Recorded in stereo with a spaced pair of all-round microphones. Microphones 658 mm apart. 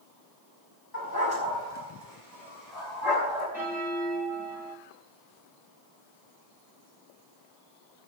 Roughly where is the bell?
Centre.